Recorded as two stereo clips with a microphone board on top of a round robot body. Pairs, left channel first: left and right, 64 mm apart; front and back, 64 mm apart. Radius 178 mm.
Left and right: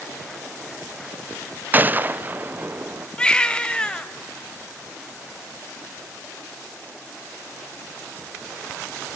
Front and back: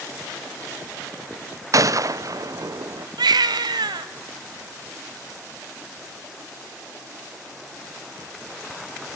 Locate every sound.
1.7 s a gunshot: 150° right, 0.7 m
3.2 s a baby crying: 165° left, 0.8 m